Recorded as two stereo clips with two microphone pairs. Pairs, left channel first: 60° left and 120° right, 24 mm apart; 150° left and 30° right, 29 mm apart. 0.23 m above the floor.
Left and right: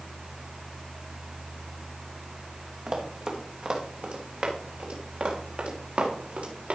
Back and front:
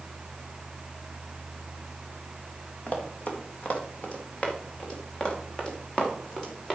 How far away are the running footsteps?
About 3 m.